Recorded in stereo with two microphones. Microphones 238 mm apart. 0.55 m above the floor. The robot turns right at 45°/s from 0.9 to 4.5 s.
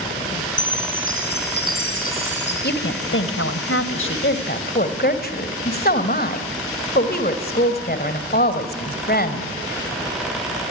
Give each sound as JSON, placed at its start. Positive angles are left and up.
{"t": 0.6, "sound": "a chime", "azimuth_deg": 60, "distance_m": 3.5}
{"t": 2.6, "sound": "a woman speaking", "azimuth_deg": 50, "distance_m": 2.0}